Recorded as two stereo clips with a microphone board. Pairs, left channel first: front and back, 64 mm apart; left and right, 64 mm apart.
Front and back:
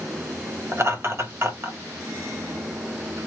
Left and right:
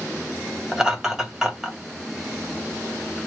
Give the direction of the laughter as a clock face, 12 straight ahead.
6 o'clock.